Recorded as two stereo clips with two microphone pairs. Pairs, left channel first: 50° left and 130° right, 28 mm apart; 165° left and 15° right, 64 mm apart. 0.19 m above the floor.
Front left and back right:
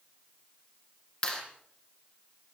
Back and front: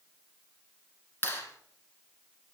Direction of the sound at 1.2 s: 110° left.